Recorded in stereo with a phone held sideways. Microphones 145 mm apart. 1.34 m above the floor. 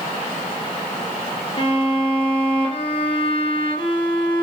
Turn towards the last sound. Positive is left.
turn(degrees=35)  # may be behind; listen again after turning